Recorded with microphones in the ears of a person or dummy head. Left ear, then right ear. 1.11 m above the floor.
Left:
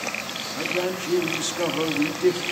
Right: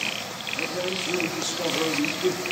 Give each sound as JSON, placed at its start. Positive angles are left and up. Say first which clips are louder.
{"t": 0.6, "sound": "a man speaking", "louder": "left 2 dB", "side_deg": 30, "distance_m": 1.4}